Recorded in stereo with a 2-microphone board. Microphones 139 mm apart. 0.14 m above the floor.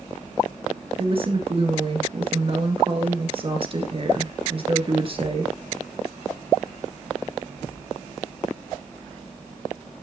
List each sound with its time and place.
1.0 s a woman speaking: 40° right (ahead or behind), 2 m